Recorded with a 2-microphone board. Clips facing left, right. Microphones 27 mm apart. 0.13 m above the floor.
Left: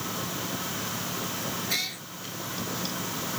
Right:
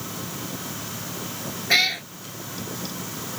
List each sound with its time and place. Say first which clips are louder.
1.7 s a cat meowing: right 15 dB; 50° right (ahead or behind)